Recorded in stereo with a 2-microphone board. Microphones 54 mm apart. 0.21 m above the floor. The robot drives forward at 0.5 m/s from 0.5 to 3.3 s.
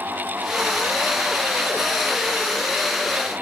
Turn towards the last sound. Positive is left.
No sound to turn to.